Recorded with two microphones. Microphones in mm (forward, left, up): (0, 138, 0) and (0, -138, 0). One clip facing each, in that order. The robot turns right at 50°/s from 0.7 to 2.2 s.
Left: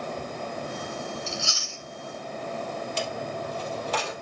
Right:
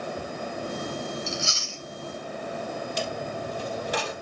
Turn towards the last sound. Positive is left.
turn(degrees=-15)  # may be behind; listen again after turning